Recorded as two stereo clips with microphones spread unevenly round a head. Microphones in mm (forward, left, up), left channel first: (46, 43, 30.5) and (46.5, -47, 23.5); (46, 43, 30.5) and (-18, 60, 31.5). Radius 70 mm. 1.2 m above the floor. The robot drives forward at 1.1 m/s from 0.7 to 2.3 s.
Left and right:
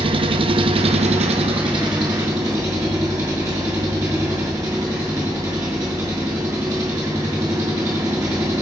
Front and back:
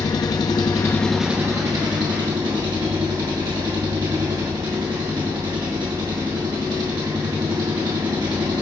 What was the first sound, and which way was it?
An engine running, 65° right.